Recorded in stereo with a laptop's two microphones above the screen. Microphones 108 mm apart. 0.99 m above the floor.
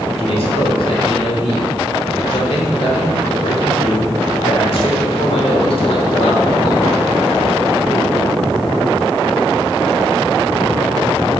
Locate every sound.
0.2 s a man speaking: 65° left (ahead or behind), 2.5 m